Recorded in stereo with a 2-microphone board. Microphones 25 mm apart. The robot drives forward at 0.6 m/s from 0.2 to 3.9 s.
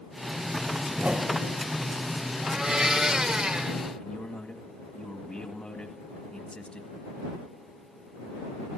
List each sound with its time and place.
0.9 s a whoosh: 45° right (ahead or behind), 0.6 m; by 1.6 s 70° right (ahead or behind), 0.5 m
2.4 s a blender: 30° right (ahead or behind), 2 m; by 3.8 s 45° right (ahead or behind), 1.5 m
4.0 s a man speaking: 35° left (ahead or behind), 2 m